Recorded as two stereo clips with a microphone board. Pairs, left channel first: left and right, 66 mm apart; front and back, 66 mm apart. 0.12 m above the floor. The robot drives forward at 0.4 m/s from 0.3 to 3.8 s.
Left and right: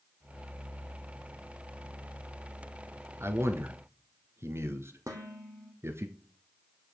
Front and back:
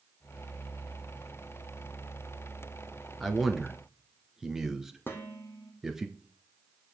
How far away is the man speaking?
About 1.8 m.